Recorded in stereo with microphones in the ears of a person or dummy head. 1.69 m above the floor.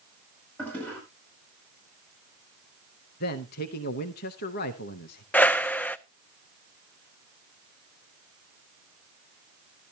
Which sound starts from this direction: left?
A man speaking, at 3.2 s.